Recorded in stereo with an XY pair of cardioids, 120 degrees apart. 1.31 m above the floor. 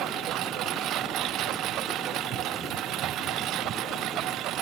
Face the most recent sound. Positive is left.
turn(degrees=-70)